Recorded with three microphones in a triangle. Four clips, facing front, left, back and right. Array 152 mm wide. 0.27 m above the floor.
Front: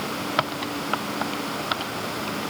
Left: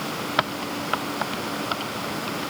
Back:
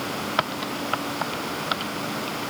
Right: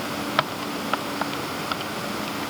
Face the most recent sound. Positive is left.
No sound to turn to.